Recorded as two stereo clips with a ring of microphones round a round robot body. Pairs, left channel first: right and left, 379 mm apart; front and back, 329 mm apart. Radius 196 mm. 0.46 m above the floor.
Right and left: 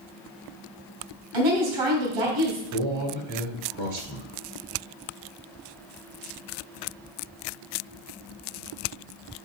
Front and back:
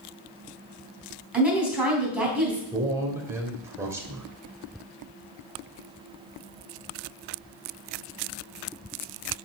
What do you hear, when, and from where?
1.3 s a woman speaking: 95° left, 3.5 m
2.7 s a man speaking: 100° left, 1.9 m